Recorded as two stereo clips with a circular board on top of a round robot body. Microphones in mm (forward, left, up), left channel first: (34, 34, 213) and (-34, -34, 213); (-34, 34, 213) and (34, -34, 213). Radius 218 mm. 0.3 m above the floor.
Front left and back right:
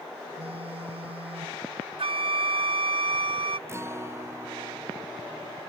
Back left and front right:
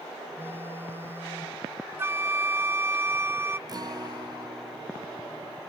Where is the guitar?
80° right.